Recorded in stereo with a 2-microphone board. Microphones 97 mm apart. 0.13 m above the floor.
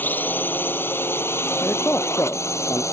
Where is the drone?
20° left (ahead or behind); by 2.9 s 30° left (ahead or behind).